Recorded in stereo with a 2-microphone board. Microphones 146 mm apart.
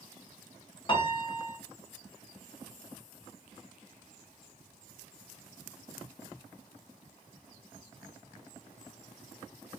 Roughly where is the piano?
Left.